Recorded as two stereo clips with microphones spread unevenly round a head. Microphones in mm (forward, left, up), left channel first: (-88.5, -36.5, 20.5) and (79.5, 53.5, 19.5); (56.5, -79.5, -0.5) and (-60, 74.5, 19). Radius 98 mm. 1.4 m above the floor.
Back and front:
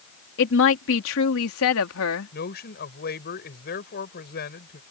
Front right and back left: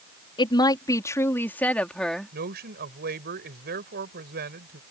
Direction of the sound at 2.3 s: 170° left.